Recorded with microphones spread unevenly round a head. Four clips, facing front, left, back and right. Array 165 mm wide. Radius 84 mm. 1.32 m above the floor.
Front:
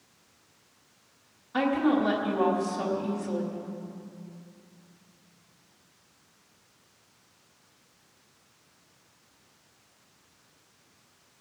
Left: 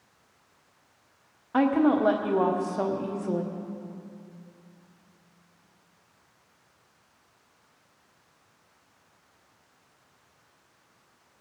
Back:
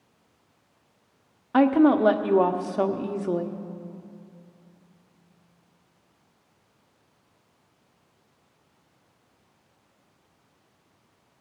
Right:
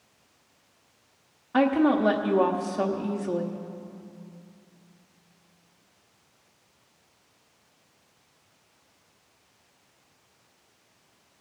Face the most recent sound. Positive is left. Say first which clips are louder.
# even, back 6 dB
turn(degrees=170)